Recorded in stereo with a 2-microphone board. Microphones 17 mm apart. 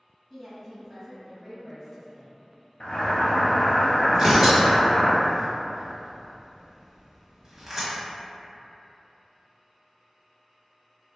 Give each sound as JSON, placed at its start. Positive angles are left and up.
{"t": 0.3, "sound": "a woman speaking", "side_deg": 10, "distance_m": 1.6}
{"t": 2.8, "sound": "boiling", "side_deg": 85, "distance_m": 0.7}
{"t": 4.1, "sound": "tearing paper", "side_deg": -25, "distance_m": 1.0}